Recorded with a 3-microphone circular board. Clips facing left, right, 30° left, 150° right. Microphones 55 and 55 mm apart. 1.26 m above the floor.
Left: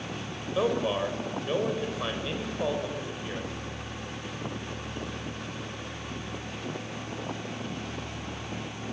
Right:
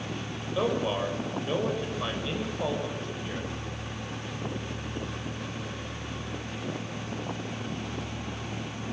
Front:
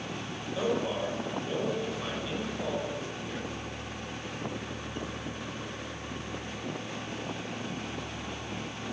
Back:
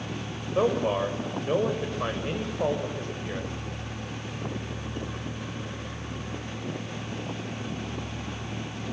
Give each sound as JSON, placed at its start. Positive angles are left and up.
{"t": 0.6, "sound": "a man speaking", "azimuth_deg": 170, "distance_m": 4.5}